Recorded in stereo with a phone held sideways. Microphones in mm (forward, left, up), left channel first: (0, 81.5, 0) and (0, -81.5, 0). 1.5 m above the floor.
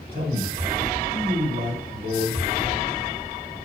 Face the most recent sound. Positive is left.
turn(degrees=-70)  # may be behind; listen again after turning